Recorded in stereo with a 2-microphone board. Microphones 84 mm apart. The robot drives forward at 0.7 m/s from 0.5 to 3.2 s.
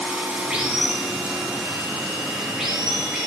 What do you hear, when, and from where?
0.0 s running water: 15° right (ahead or behind), 2.0 m; by 3.3 s 10° right (ahead or behind), 4 m